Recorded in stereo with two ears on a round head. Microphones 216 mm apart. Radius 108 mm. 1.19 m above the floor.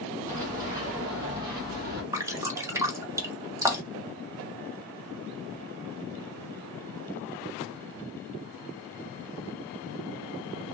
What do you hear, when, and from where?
0.3 s running footsteps: 35° right (ahead or behind), 2 m; by 2.0 s 45° right (ahead or behind), 1.6 m
2.1 s dripping: 10° right (ahead or behind), 0.5 m